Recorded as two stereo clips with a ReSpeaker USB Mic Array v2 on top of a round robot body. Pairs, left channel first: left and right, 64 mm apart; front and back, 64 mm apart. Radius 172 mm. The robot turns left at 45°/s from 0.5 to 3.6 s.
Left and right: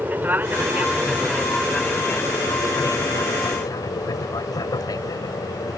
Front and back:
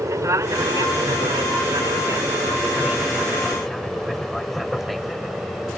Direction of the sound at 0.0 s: 150° right.